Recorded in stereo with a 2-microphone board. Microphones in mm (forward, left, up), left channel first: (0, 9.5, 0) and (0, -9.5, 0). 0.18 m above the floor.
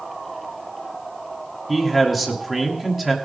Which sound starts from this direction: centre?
A man speaking, at 1.7 s.